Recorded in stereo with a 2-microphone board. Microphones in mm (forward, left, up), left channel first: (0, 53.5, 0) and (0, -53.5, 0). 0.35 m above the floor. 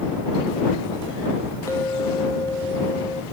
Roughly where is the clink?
Left.